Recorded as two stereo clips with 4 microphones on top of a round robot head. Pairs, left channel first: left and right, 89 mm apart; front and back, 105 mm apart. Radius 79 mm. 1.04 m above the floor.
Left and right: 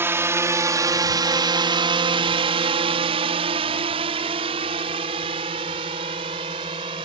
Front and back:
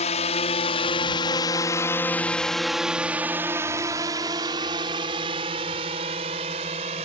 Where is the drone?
25° right; by 7.1 s 140° right.